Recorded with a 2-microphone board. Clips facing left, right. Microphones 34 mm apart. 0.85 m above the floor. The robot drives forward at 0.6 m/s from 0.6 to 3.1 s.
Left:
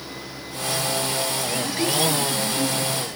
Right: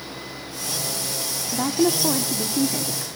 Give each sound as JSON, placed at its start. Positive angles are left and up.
{"t": 1.5, "sound": "a woman speaking", "side_deg": -70, "distance_m": 2.0}